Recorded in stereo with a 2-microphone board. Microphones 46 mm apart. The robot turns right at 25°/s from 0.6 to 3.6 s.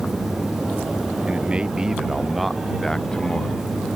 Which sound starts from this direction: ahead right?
A man speaking, at 1.3 s.